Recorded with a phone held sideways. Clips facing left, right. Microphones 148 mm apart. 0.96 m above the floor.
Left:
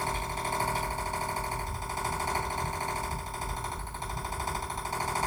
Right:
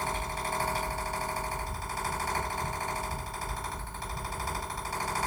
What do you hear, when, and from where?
0.0 s a fan: 20° left (ahead or behind), 4 m